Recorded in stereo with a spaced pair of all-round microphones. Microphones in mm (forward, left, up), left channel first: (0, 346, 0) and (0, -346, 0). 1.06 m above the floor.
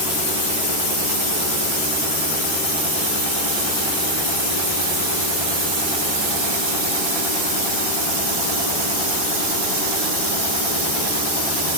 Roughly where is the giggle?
I don't hear a giggle.